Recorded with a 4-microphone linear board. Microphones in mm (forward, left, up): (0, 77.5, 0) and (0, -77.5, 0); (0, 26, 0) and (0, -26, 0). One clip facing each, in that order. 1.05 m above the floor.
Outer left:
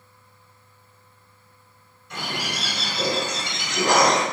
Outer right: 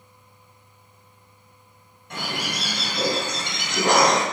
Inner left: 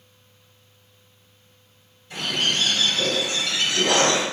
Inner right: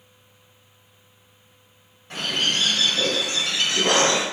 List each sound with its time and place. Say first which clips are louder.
2.1 s a bird: outer right 1 dB, even; 55° right (ahead or behind), 1.6 m